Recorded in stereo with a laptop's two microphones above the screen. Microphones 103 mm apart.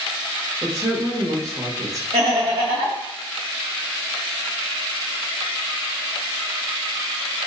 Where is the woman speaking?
35° right (ahead or behind), 1.0 m.